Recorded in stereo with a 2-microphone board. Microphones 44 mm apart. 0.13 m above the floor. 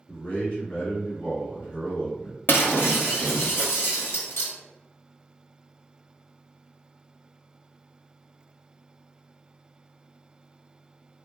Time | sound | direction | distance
0.1 | a man speaking | 35° left (ahead or behind) | 1.7 m
2.5 | breaking glass | 60° left (ahead or behind) | 1.2 m